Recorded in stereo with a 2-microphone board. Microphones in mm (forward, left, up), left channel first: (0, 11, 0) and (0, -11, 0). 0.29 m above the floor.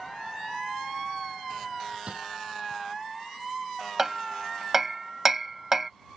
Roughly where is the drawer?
Right.